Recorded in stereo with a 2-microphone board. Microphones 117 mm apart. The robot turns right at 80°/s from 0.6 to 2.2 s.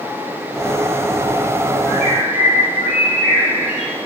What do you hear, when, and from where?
1.9 s a bird: 50° left (ahead or behind), 3.5 m; by 4.0 s 25° left (ahead or behind), 3.5 m